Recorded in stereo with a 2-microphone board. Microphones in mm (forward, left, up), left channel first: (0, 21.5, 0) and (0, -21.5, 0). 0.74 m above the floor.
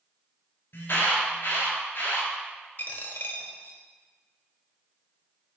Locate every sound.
0.7 s an alarm: 60° left (ahead or behind), 2.5 m
2.8 s a dropped coin: 50° left (ahead or behind), 1.1 m